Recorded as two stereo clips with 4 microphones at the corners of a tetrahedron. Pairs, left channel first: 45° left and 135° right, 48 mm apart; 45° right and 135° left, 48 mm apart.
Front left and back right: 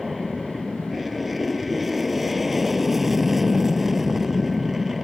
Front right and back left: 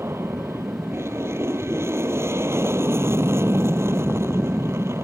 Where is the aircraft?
135° left; by 5.0 s 140° left.